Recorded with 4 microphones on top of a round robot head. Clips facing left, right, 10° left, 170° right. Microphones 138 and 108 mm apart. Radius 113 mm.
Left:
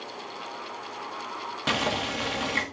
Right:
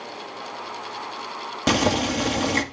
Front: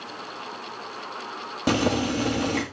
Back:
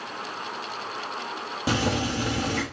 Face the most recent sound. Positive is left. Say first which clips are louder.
# right 8 dB, front 3 dB
turn(degrees=-40)